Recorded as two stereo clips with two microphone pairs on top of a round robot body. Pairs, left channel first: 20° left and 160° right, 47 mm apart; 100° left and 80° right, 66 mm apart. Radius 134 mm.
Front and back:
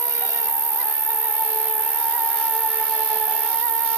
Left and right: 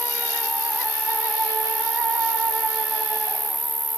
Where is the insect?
170° right, 0.8 m.